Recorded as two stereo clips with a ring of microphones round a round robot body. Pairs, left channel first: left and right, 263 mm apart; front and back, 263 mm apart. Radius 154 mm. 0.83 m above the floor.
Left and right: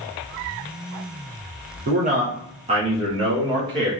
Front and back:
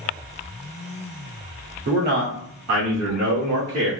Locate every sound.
1.9 s a man speaking: 135° right, 0.7 m; by 3.9 s 165° right, 1.6 m